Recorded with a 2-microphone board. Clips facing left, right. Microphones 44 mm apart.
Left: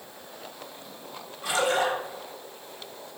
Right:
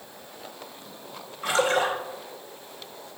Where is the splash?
45° right (ahead or behind), 2.5 m.